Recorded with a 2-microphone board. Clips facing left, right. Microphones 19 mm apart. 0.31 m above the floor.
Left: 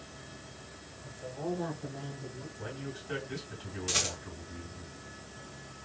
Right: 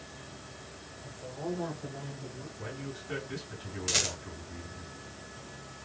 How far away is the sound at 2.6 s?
About 2.5 m.